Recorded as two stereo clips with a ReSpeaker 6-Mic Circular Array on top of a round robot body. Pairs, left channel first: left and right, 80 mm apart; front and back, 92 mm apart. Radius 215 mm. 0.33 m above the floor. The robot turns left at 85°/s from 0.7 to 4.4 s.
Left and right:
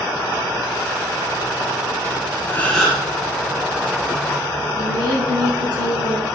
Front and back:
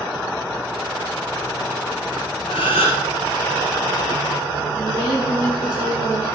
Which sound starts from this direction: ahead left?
A gasp, at 2.5 s.